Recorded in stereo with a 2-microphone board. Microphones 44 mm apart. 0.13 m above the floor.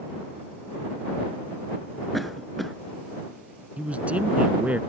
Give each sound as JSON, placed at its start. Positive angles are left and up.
{"t": 2.1, "sound": "a cough", "side_deg": 0}
{"t": 3.8, "sound": "a man speaking", "side_deg": -30}